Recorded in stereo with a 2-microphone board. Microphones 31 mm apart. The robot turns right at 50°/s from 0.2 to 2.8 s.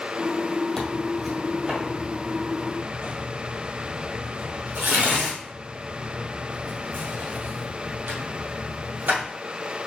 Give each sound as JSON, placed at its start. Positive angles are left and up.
{"t": 0.8, "sound": "tearing paper", "side_deg": 15, "distance_m": 1.7}